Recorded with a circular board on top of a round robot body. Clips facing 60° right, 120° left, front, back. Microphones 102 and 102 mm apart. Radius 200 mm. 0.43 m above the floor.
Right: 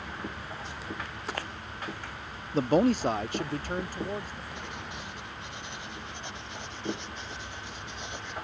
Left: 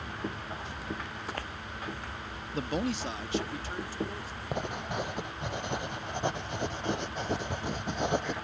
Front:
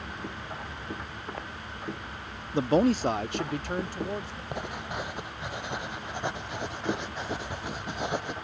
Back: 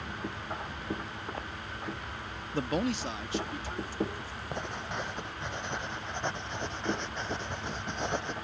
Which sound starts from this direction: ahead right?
A man speaking, at 2.5 s.